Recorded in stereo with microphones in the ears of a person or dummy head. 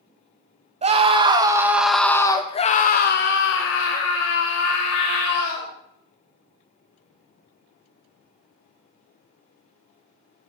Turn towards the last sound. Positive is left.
turn(degrees=85)